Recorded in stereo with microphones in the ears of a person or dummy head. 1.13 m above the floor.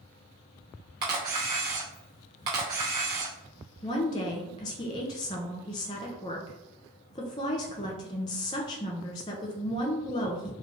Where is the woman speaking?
25° left (ahead or behind), 0.5 m.